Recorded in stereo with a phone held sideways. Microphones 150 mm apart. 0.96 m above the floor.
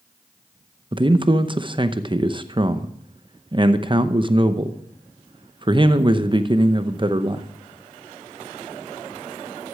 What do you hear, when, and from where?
0.9 s a man speaking: 35° right (ahead or behind), 0.8 m